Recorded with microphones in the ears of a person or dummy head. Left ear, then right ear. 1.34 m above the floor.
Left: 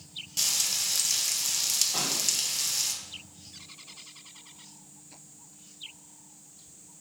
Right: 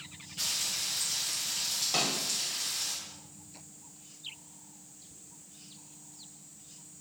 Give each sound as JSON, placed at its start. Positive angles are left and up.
{"t": 0.4, "sound": "frying", "side_deg": 75, "distance_m": 0.8}
{"t": 1.9, "sound": "a snare drum", "side_deg": -80, "distance_m": 1.0}